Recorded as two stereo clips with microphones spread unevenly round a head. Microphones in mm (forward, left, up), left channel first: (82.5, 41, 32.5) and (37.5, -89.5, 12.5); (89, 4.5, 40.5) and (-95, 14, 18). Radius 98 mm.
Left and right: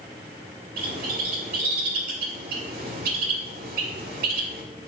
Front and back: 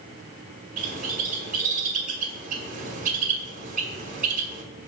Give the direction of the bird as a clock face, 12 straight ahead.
5 o'clock.